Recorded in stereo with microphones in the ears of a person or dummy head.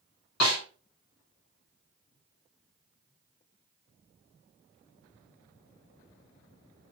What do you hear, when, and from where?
0.4 s a snare drum: 75° left (ahead or behind), 1.1 m